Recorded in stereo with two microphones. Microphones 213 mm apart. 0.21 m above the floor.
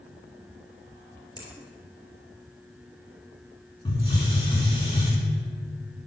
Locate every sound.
1.4 s a finger snap: 20° left (ahead or behind), 2.5 m
3.9 s a hiss: 20° left (ahead or behind), 2.5 m